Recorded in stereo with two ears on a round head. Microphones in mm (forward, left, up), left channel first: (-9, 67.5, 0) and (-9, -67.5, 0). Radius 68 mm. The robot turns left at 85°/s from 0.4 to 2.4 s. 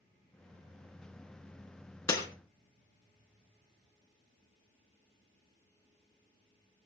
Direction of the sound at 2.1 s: 20° left (ahead or behind).